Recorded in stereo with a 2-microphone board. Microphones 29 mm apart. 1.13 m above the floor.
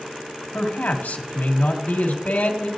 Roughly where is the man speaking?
Left.